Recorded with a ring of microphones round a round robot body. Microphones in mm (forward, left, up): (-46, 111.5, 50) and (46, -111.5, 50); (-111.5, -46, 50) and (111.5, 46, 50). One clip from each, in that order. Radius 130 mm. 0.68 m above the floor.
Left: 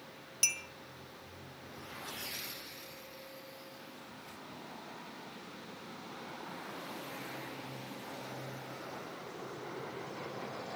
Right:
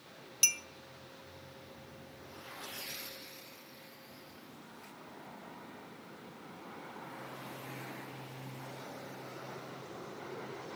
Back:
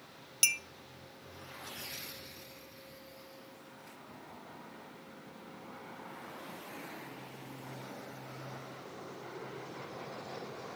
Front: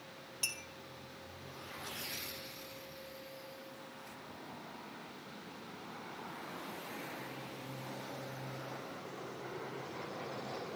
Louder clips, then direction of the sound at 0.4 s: Right 2 dB, back 10 dB; 150° right.